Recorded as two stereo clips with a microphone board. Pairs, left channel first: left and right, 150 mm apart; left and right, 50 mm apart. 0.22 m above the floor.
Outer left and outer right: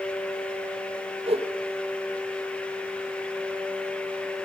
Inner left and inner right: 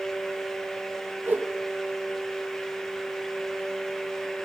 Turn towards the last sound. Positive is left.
turn(degrees=-40)  # may be behind; listen again after turning